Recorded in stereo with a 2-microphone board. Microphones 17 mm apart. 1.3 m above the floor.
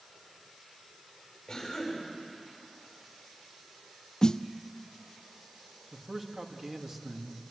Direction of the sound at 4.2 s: 55° left (ahead or behind).